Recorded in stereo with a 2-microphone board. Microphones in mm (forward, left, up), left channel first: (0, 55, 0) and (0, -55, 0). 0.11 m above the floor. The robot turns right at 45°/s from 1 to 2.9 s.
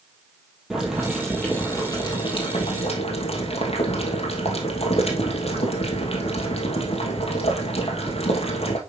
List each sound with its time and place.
0.7 s boiling: 5° right, 2 m; by 8.8 s 85° left, 2 m